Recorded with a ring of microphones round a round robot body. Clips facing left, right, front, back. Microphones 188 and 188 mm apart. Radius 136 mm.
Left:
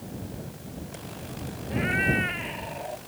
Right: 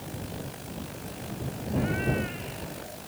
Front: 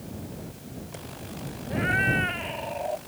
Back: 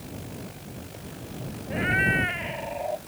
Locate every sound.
1.7 s a cat meowing: 110° left; by 3.0 s 95° left